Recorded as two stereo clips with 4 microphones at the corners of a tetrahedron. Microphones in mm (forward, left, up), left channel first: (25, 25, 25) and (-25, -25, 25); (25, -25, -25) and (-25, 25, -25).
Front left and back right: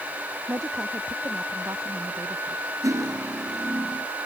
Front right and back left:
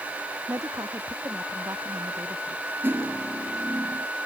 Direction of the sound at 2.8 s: 165° right.